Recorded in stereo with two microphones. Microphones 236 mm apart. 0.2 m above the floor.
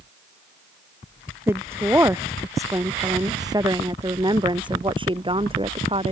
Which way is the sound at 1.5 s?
10° right (ahead or behind).